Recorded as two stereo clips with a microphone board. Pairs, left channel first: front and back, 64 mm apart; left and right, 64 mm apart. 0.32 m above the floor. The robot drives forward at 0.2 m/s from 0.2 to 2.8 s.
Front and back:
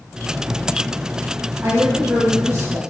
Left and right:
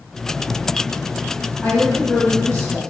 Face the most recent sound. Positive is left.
turn(degrees=160)